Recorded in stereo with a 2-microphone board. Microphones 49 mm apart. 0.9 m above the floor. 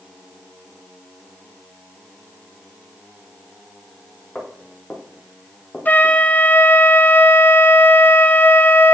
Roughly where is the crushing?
I don't hear crushing.